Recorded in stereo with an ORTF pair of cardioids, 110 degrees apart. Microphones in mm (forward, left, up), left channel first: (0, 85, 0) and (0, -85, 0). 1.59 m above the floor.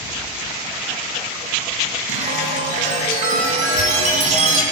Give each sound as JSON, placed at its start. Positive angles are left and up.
{"t": 2.1, "sound": "a chime", "azimuth_deg": -45, "distance_m": 3.0}